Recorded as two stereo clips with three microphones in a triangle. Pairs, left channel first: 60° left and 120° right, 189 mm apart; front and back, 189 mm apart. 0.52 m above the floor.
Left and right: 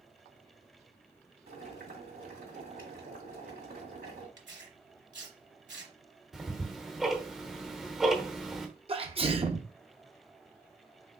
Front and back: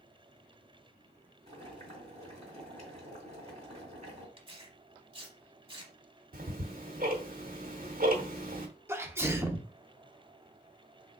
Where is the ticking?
155° left, 1.0 m.